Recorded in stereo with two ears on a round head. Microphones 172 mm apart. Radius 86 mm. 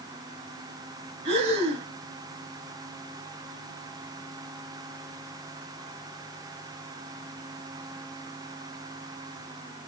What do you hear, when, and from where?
1.2 s breathing: 35° right (ahead or behind), 1.8 m